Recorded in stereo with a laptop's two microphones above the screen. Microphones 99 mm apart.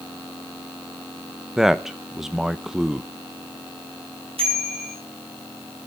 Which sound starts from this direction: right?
A bicycle bell, at 4.4 s.